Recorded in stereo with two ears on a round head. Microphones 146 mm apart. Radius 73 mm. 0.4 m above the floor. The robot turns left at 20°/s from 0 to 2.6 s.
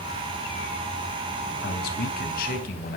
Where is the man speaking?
70° left (ahead or behind), 3 m; by 3.0 s 60° left (ahead or behind), 3 m.